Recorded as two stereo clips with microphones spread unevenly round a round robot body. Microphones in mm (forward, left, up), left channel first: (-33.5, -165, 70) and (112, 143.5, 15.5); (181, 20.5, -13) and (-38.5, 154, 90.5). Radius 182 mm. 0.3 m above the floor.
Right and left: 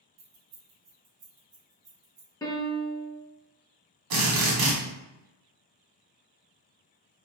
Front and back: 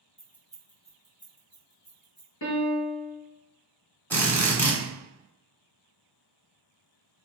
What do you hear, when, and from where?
0.2 s keys jangling: 45° left, 1.0 m; by 2.3 s 10° left, 2.5 m
2.4 s a piano: 35° right, 1.0 m
4.1 s a drill: 45° left, 1.2 m